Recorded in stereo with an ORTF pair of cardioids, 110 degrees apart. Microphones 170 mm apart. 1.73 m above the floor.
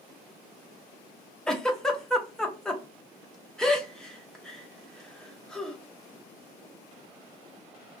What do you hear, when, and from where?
1.5 s a giggle: 5° left, 0.6 m